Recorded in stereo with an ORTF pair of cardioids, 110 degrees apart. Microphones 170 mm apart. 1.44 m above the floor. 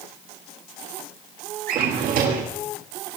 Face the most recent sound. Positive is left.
turn(degrees=-65)